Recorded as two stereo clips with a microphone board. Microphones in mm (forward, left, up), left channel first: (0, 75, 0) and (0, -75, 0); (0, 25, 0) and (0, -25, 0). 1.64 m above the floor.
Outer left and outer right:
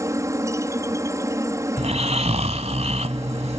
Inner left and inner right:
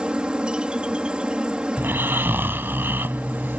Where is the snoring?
45° right (ahead or behind).